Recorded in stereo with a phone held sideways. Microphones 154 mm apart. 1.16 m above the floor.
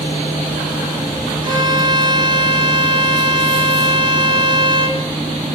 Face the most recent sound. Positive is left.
turn(degrees=-30)  # may be behind; listen again after turning